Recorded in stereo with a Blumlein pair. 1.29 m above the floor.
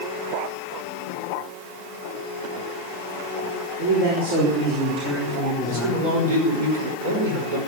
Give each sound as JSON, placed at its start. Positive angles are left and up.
{"t": 3.8, "sound": "a man speaking", "azimuth_deg": -45, "distance_m": 4.0}
{"t": 5.7, "sound": "a man speaking", "azimuth_deg": -55, "distance_m": 5.0}